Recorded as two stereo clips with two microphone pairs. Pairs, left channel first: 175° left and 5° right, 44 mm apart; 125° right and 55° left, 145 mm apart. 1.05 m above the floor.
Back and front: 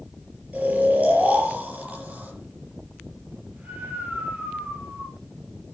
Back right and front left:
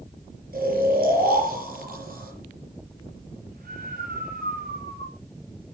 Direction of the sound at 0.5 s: 45° left.